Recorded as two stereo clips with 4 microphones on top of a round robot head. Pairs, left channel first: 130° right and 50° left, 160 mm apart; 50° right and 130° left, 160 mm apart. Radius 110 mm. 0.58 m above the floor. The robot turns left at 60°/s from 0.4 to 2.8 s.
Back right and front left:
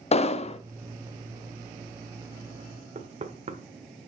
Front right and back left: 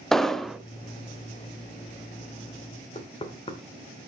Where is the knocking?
5° left, 1.3 m.